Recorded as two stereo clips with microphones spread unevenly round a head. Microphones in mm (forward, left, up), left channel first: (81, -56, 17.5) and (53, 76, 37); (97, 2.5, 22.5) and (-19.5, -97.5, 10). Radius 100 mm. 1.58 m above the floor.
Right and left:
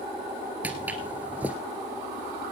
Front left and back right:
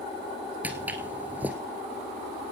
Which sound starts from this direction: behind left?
Footsteps, at 0.6 s.